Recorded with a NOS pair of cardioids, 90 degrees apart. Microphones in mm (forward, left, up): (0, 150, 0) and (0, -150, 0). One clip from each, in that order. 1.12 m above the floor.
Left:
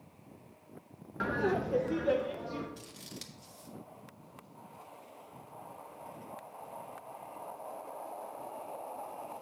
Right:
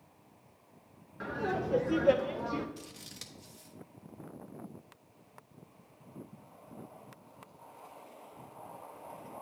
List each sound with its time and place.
1.2 s laughter: 35° left, 0.5 m; by 2.7 s 45° right, 0.9 m
2.8 s scissors: straight ahead, 1.0 m